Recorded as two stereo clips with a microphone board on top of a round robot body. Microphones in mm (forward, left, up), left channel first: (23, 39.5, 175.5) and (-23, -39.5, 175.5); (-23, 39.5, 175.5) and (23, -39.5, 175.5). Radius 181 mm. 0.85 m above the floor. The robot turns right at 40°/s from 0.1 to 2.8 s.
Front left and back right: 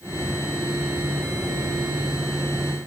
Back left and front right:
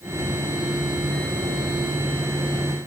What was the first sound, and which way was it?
Only background noise.